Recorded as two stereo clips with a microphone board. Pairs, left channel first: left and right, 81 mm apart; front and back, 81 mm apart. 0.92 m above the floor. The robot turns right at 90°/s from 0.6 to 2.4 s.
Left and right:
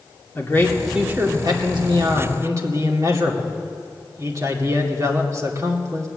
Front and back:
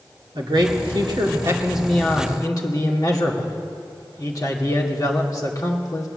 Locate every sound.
0.3 s a man speaking: 155° left, 2.5 m; by 6.1 s 40° right, 2.5 m